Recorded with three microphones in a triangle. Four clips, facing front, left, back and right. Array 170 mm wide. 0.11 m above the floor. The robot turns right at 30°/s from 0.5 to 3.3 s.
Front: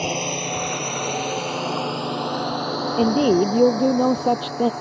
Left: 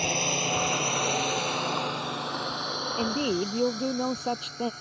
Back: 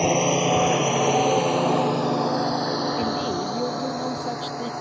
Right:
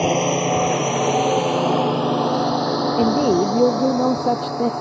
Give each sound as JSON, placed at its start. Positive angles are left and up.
{"t": 0.0, "sound": "a drone", "azimuth_deg": -115}
{"t": 3.0, "sound": "a woman speaking", "azimuth_deg": -45}